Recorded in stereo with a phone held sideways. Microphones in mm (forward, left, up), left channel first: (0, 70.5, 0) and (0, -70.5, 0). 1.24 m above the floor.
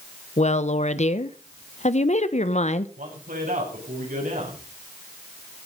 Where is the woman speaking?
55° left (ahead or behind), 1.0 m.